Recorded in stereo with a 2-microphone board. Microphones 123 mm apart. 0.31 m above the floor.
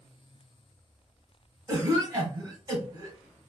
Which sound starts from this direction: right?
A cough, at 1.7 s.